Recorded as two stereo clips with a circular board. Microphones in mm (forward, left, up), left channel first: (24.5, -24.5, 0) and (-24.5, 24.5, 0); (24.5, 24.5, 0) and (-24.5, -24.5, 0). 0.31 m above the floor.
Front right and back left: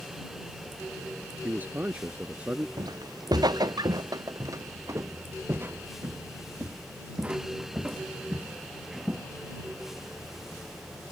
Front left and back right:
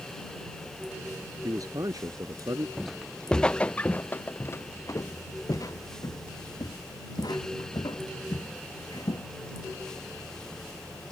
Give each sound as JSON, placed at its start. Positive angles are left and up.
{"t": 1.4, "sound": "a man speaking", "azimuth_deg": -160}
{"t": 2.8, "sound": "footsteps", "azimuth_deg": 135}